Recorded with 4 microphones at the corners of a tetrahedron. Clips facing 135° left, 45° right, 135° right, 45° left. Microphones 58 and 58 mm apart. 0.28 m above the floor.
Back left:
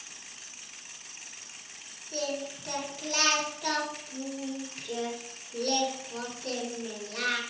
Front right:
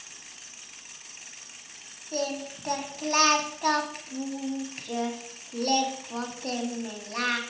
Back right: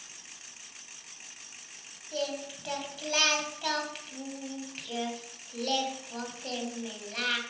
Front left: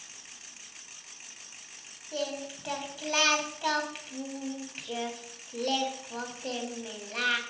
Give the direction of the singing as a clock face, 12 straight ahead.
1 o'clock.